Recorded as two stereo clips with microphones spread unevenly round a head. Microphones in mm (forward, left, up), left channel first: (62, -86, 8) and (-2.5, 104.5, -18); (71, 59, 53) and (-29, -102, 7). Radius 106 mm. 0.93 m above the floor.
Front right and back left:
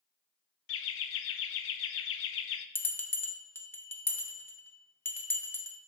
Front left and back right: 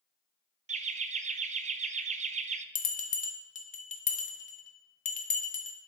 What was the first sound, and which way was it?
Laughter, 90° right.